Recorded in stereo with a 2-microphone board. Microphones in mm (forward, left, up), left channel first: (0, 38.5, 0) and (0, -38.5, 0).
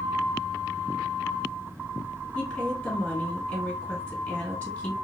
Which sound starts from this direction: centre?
A woman speaking, at 2.4 s.